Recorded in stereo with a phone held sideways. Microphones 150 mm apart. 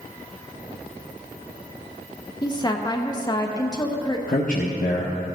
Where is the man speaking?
60° left (ahead or behind), 1.0 m.